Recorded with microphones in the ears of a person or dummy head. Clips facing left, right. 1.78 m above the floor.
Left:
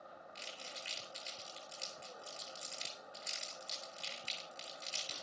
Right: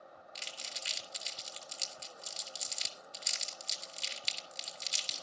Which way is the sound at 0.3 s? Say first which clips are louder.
Right 1 dB; 55° right (ahead or behind).